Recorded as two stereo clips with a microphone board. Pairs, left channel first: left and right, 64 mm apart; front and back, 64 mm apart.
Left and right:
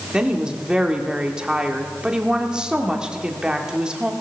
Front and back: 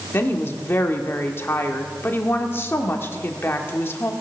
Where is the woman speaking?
20° right, 1.2 m.